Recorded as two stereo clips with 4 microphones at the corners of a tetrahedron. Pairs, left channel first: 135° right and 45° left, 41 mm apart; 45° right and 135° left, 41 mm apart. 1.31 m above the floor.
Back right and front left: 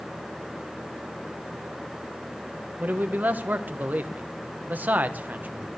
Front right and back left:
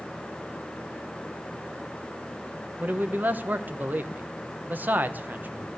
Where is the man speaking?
90° left, 1.0 m.